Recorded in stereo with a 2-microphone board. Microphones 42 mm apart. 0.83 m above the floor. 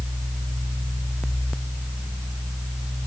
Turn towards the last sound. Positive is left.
No sound to turn to.